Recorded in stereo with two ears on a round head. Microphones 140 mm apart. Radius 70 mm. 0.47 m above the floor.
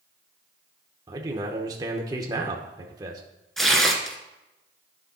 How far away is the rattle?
No rattle in this recording.